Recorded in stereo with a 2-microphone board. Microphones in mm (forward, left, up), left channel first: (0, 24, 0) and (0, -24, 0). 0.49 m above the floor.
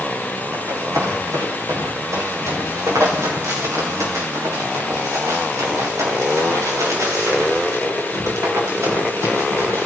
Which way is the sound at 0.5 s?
75° right (ahead or behind).